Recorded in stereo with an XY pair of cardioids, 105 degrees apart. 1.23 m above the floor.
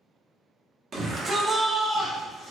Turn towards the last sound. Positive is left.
turn(degrees=55)